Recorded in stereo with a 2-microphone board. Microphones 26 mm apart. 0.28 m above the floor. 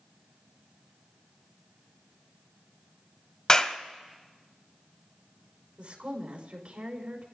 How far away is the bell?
No bell in this recording.